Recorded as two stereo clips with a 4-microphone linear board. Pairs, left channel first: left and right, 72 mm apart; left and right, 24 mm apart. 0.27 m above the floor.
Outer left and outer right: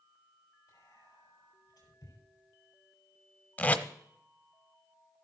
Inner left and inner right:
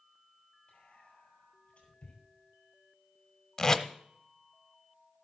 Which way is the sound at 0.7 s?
50° left (ahead or behind).